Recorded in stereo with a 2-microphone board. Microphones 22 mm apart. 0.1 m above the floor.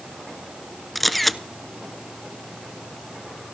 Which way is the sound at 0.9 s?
5° left (ahead or behind).